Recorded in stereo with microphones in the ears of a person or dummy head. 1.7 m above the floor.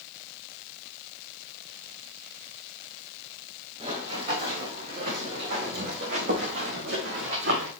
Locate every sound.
3.8 s running footsteps: 35° right (ahead or behind), 6 m; by 7.7 s 65° right (ahead or behind), 5.5 m